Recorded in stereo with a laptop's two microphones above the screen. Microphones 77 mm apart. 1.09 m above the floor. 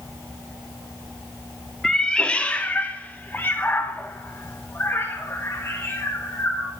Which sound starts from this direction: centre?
A cat meowing, at 1.8 s.